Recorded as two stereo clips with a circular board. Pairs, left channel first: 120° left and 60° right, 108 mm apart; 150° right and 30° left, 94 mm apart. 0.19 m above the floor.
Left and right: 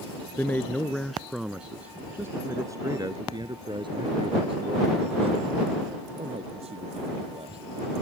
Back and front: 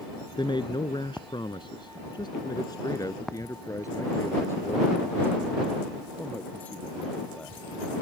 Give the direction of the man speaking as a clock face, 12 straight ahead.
6 o'clock.